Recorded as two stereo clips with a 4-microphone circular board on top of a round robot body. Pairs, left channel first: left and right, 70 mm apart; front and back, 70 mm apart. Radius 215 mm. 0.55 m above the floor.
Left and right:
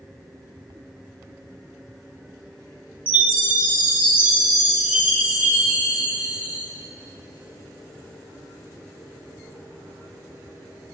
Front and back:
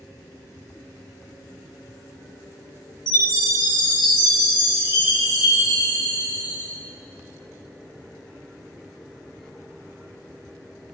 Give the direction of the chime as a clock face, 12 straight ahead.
1 o'clock.